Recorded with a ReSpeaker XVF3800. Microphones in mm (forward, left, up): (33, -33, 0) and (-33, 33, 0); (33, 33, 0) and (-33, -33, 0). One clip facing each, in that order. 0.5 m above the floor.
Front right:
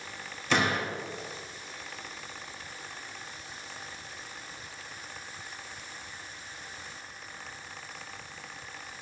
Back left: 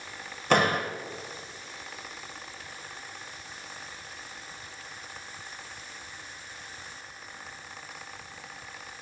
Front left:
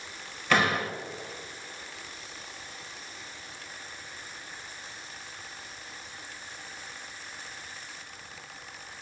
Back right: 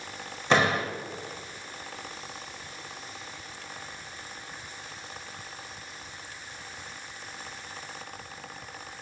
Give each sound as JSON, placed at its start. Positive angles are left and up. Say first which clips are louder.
{"t": 0.5, "sound": "a door slam", "louder": "back left 4 dB, back right 2 dB", "azimuth_deg": 165, "distance_m": 2.0}